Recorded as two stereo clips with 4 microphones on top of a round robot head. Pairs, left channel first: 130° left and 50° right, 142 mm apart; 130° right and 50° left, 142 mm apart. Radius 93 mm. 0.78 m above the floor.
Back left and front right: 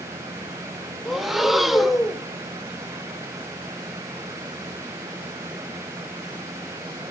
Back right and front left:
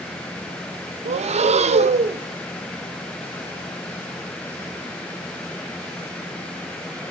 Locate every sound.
1.1 s breathing: 40° left, 0.5 m